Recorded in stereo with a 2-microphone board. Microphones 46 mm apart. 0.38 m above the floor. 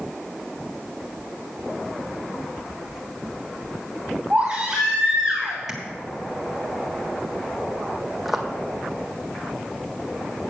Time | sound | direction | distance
4.3 | a baby crying | 20° right (ahead or behind) | 3.5 m
5.7 | tapping | 10° right (ahead or behind) | 1.4 m
8.2 | footsteps | centre (ahead or behind) | 1.0 m